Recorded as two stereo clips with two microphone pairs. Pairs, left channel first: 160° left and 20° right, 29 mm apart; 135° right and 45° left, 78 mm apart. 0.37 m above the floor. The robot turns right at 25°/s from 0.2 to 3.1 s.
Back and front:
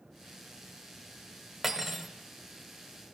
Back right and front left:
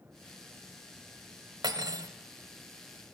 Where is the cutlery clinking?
60° left, 0.8 m; by 2.1 s 70° left, 0.8 m.